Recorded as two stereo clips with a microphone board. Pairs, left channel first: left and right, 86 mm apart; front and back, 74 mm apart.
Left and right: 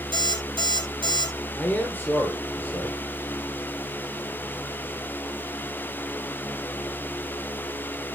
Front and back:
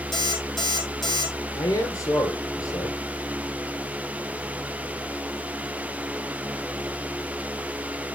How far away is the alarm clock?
About 2.5 m.